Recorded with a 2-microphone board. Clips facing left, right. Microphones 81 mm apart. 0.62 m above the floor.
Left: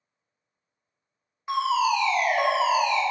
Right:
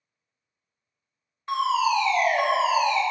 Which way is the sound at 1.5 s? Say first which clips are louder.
Even; 10° left (ahead or behind).